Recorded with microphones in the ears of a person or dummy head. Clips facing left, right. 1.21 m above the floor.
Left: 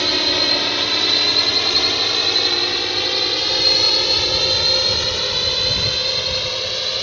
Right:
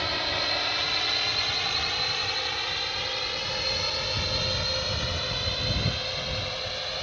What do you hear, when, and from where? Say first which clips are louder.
0.0 s a drone: left 9 dB; 55° left (ahead or behind); by 7.0 s 70° left (ahead or behind)